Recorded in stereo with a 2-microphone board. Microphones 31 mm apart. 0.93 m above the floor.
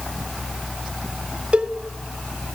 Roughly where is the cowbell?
Right.